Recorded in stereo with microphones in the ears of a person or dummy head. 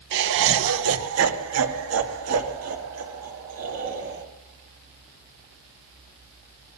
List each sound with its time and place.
0.1 s laughter: 60° right (ahead or behind), 1.3 m; by 4.2 s 75° right (ahead or behind), 3.5 m